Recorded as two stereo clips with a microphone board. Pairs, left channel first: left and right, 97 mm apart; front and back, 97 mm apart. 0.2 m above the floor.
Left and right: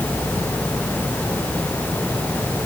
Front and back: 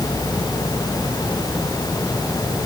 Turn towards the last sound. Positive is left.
No sound to turn to.